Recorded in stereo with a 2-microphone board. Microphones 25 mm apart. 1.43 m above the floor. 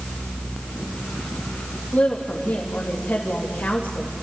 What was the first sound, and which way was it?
A woman speaking, 85° left.